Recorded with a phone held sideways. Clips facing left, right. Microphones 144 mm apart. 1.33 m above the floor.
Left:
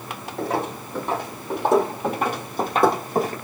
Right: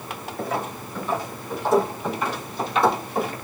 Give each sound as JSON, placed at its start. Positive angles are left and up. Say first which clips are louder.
{"t": 0.4, "sound": "footsteps", "louder": "left 3 dB", "side_deg": 70, "distance_m": 3.5}